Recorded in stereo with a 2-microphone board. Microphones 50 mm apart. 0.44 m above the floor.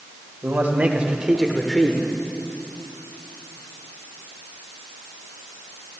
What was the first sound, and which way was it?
A man speaking, 45° right (ahead or behind).